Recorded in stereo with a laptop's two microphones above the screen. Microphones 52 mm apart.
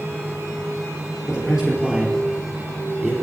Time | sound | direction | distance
0.0 | a fan | 65° right (ahead or behind) | 5 m
1.3 | a man speaking | 15° right (ahead or behind) | 3 m